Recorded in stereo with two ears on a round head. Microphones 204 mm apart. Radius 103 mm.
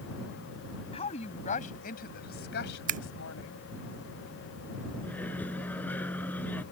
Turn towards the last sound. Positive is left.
turn(degrees=10)  # may be behind; listen again after turning